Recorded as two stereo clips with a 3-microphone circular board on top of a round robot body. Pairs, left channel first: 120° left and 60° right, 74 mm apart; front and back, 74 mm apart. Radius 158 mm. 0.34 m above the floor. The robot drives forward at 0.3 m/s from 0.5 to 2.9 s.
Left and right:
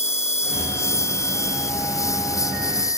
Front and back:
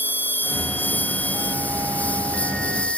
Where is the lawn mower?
65° left; by 3.0 s 75° left.